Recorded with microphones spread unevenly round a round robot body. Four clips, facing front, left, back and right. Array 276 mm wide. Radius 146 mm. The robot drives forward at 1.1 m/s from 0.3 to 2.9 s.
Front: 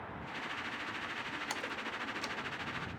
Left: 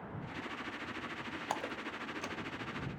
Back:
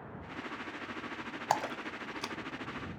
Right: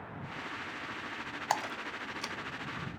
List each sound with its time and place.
1.5 s a splash: 155° right; by 2.4 s 170° right